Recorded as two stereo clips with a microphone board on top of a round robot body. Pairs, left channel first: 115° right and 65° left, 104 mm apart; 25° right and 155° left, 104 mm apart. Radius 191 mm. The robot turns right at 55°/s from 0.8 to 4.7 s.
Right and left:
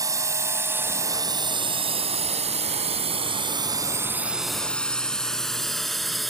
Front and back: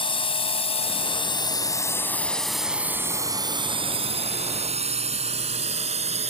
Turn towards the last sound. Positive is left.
turn(degrees=155)